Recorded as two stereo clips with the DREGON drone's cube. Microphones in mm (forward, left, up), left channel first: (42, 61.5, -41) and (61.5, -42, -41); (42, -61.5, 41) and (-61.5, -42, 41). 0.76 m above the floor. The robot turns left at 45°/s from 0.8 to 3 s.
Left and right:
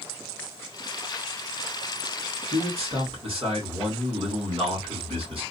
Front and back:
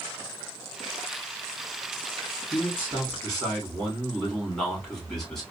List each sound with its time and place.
2.5 s a man speaking: 75° right, 3 m; by 5.4 s 100° right, 3 m